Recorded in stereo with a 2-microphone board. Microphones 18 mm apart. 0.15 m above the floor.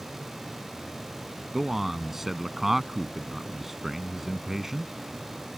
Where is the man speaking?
15° right (ahead or behind).